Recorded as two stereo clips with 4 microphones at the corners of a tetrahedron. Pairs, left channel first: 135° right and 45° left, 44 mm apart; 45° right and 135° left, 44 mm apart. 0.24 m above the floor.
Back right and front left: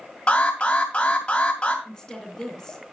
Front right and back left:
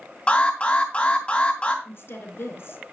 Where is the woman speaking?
60° right, 2.5 m.